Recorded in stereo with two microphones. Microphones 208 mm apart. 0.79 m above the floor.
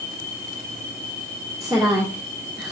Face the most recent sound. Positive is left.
turn(degrees=-5)  # may be behind; listen again after turning